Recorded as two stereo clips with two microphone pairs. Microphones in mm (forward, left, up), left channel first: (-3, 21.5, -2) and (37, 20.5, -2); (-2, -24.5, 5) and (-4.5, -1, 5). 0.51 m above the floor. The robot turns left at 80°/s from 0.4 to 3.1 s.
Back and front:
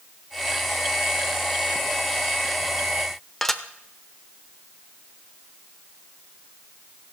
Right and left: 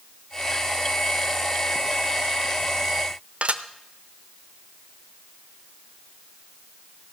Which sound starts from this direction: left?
Dishes clattering, at 3.4 s.